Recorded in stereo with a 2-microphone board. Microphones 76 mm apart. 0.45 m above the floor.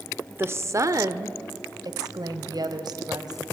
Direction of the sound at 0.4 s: 30° right (ahead or behind).